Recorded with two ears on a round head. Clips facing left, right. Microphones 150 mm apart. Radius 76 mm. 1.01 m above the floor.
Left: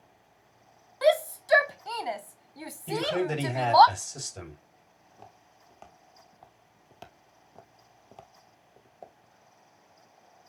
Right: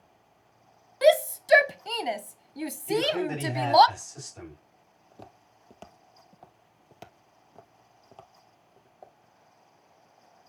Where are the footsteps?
50° right (ahead or behind), 1.8 m; by 9.2 s 25° left (ahead or behind), 1.9 m.